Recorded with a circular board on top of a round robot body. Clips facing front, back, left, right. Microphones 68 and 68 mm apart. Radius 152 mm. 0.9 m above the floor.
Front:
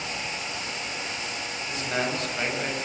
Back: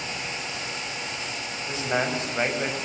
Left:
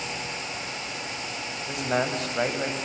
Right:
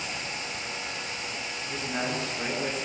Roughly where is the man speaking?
Left.